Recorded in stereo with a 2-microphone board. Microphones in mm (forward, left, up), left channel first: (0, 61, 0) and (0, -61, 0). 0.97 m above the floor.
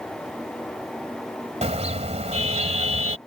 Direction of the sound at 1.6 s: 65° right (ahead or behind).